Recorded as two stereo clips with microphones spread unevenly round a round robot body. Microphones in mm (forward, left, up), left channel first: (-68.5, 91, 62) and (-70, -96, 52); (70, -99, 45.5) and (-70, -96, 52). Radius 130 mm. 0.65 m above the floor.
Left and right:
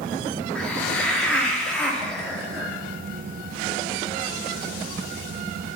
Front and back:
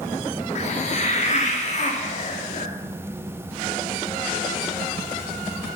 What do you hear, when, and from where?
0.6 s a hiss: 5° left, 1.6 m